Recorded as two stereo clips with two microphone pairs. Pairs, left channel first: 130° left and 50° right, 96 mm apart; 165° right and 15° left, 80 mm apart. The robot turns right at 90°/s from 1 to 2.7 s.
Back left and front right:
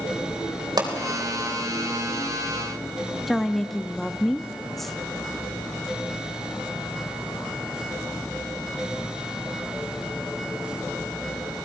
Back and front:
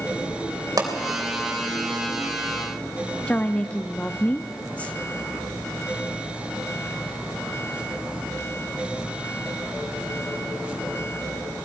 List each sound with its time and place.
0.8 s a pop: 15° right, 3.5 m
3.3 s a woman speaking: 145° right, 0.6 m